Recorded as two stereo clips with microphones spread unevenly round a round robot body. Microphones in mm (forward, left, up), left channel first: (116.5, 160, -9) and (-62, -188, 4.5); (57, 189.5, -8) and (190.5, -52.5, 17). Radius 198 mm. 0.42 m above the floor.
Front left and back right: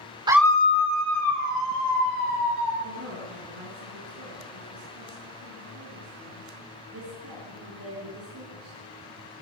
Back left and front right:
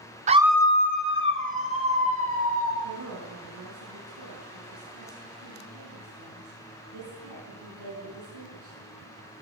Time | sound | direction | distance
0.3 | a scream | 55° right | 0.7 m
2.8 | a woman speaking | 65° right | 5.5 m